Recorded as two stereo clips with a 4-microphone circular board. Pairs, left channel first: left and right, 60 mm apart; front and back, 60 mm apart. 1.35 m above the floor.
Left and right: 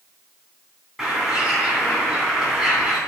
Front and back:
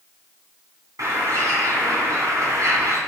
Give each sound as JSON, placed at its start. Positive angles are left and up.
{"t": 1.0, "sound": "a bird", "azimuth_deg": -170, "distance_m": 3.0}